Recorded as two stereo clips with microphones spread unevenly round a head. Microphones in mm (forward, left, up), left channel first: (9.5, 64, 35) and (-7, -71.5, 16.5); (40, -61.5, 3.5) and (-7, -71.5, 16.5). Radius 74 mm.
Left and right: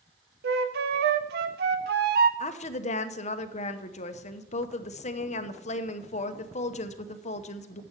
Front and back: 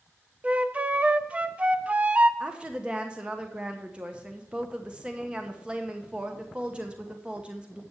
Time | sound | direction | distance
0.4 | a flute | 110° right | 0.9 m
2.4 | a woman speaking | 110° left | 0.9 m